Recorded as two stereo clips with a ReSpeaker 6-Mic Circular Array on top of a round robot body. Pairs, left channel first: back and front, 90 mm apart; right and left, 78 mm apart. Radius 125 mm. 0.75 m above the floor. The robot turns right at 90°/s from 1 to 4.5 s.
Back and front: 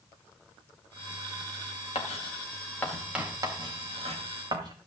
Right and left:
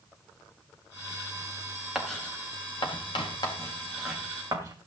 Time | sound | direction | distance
1.9 | writing | 170° left | 3.5 m